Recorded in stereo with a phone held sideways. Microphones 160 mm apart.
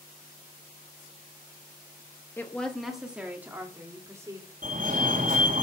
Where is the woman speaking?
15° left (ahead or behind), 1.0 m; by 4.5 s 20° right (ahead or behind), 2.5 m.